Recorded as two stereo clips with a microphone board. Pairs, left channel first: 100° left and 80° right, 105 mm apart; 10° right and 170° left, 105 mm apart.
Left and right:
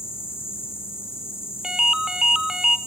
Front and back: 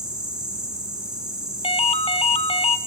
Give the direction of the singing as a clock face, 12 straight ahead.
I don't hear singing.